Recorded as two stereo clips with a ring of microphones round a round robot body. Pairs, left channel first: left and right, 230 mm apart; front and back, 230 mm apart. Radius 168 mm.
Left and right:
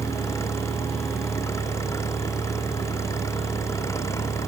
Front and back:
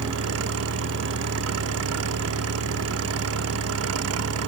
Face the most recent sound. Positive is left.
turn(degrees=170)